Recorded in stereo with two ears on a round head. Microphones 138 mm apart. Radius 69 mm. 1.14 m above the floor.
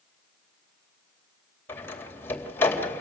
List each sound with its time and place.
1.7 s a door slam: 15° left (ahead or behind), 3 m